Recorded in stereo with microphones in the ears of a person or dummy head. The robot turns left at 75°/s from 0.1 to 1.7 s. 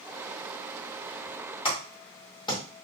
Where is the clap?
30° left (ahead or behind), 1.9 m.